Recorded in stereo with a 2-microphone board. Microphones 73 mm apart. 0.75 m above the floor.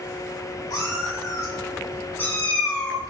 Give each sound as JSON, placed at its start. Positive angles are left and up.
{"t": 0.7, "sound": "a cat meowing", "side_deg": 60, "distance_m": 1.7}